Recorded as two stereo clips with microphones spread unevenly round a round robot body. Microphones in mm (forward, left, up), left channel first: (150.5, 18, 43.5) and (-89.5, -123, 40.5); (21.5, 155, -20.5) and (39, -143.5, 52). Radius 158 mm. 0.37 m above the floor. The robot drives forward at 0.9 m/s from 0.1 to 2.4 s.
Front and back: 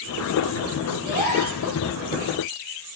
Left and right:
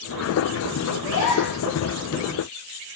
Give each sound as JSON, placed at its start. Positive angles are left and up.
{"t": 1.0, "sound": "a gasp", "azimuth_deg": 145, "distance_m": 6.5}